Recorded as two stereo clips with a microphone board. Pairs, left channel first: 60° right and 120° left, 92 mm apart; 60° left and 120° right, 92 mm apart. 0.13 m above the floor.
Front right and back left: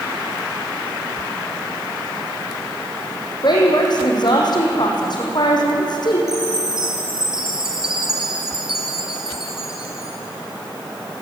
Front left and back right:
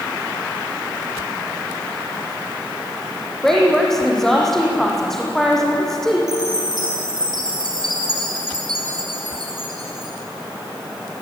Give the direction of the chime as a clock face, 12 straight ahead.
5 o'clock.